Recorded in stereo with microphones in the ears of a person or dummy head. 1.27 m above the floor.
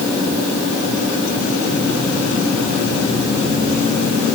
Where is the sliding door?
No sliding door in this recording.